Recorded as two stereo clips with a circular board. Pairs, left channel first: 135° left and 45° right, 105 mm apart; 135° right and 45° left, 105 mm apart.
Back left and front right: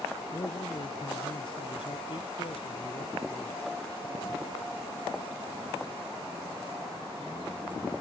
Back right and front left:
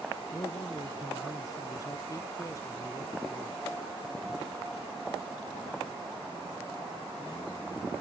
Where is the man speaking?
175° left; by 3.6 s 165° left.